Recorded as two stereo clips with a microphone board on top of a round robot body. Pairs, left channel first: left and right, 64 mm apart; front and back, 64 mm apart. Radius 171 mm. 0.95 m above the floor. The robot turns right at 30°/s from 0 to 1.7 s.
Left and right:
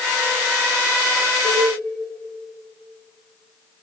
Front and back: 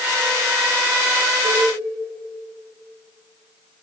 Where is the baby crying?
No baby crying in this recording.